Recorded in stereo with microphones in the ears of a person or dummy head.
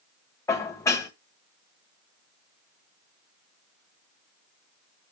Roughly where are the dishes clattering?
Centre.